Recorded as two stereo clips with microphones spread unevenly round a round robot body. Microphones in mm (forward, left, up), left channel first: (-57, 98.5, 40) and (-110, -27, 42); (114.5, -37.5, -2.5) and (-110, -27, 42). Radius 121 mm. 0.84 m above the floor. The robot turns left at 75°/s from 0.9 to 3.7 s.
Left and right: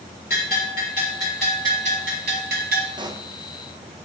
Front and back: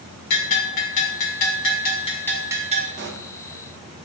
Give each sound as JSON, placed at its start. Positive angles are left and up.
{"t": 0.3, "sound": "a bell", "azimuth_deg": 20, "distance_m": 1.7}
{"t": 3.0, "sound": "a pop", "azimuth_deg": -150, "distance_m": 0.7}